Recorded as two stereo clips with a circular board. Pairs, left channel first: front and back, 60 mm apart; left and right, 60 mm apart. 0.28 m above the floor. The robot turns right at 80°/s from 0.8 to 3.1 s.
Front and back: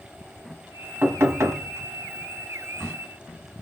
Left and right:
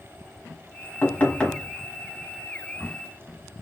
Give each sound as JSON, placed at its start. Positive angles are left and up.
{"t": 1.0, "sound": "knocking", "azimuth_deg": 130, "distance_m": 1.2}